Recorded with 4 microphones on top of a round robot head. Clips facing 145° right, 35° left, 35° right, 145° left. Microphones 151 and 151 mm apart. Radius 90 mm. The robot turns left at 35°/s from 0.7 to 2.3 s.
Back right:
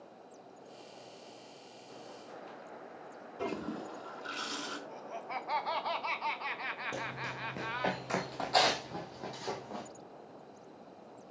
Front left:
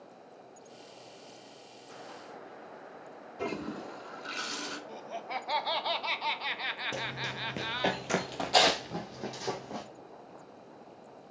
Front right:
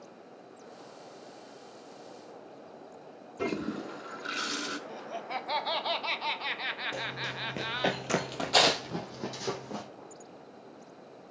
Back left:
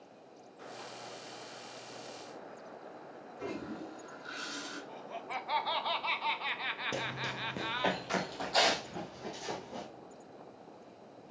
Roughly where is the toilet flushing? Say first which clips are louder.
Front left 1 dB, front right 7 dB; ahead right.